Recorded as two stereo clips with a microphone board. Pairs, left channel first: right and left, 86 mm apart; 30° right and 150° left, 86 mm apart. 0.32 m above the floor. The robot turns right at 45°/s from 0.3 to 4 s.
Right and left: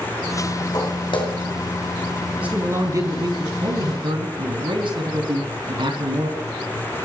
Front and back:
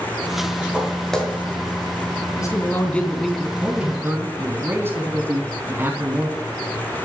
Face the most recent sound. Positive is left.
turn(degrees=85)